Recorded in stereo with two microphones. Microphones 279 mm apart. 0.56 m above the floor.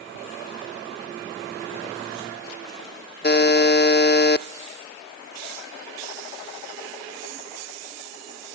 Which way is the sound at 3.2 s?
35° left (ahead or behind).